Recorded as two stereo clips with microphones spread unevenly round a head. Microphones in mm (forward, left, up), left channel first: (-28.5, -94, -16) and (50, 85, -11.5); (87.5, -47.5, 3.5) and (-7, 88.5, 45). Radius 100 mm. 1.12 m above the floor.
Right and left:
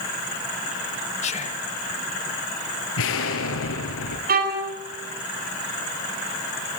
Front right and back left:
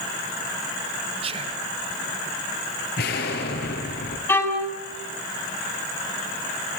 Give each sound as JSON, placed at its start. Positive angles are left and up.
{"t": 1.2, "sound": "whispering", "azimuth_deg": -170, "distance_m": 1.6}
{"t": 3.0, "sound": "an explosion", "azimuth_deg": -95, "distance_m": 5.0}
{"t": 4.3, "sound": "a violin", "azimuth_deg": 20, "distance_m": 6.5}